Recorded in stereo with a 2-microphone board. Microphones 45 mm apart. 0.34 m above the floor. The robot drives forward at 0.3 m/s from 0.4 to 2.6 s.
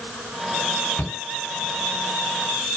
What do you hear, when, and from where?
1.0 s a shout: 50° left (ahead or behind), 6.5 m